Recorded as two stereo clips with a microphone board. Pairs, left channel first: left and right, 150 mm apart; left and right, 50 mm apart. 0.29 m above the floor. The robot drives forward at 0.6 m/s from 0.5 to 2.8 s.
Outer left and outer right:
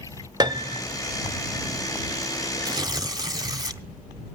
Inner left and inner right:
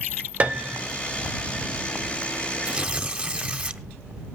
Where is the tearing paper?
25° right (ahead or behind), 0.9 m.